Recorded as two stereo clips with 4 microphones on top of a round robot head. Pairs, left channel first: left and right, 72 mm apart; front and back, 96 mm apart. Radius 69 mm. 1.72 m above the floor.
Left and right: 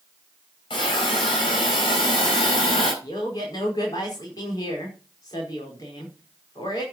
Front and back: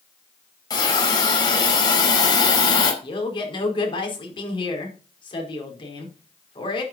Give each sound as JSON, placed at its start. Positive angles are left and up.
{"t": 0.7, "sound": "a hiss", "azimuth_deg": 45, "distance_m": 4.0}
{"t": 3.0, "sound": "a man speaking", "azimuth_deg": 35, "distance_m": 5.0}